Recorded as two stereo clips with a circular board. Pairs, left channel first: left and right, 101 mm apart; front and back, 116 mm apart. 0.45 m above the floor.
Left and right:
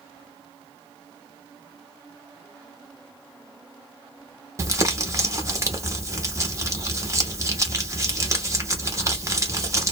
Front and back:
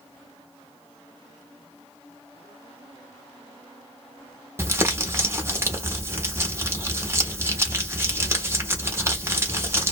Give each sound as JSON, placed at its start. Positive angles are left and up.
{"t": 4.6, "sound": "crumpling", "azimuth_deg": -125, "distance_m": 0.9}